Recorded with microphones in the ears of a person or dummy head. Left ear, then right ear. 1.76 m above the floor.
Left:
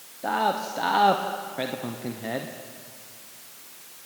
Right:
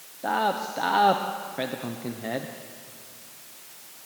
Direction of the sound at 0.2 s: Centre (ahead or behind).